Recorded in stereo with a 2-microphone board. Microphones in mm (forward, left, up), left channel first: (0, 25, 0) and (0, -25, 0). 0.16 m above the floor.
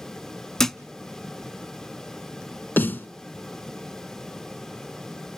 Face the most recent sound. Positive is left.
turn(degrees=45)  # may be behind; listen again after turning